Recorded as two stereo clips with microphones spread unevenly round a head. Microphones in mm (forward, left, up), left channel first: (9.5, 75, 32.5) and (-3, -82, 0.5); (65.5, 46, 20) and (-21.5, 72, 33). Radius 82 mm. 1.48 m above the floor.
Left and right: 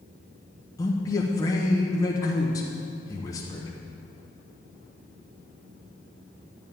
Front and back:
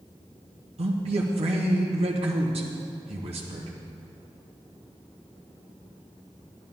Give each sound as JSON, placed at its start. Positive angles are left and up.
{"t": 0.8, "sound": "a man speaking", "azimuth_deg": 160, "distance_m": 1.3}